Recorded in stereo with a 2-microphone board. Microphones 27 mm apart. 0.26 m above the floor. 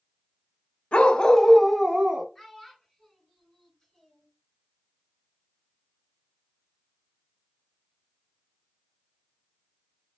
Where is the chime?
I don't hear a chime.